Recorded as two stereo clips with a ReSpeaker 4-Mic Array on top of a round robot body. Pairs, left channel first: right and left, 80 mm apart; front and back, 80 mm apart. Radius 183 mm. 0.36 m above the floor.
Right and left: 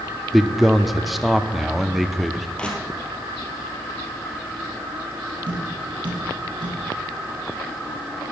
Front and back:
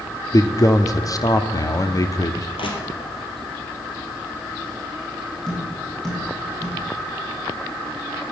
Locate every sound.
0.3 s a man speaking: 5° left, 1.1 m
2.6 s crushing: 10° right, 2.5 m
5.5 s tapping: 80° left, 5 m